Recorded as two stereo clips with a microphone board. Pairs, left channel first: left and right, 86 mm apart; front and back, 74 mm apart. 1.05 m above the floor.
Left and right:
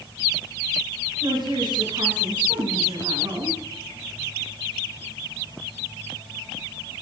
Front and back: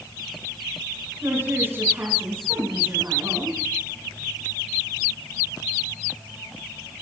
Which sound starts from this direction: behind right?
A woman speaking, at 1.2 s.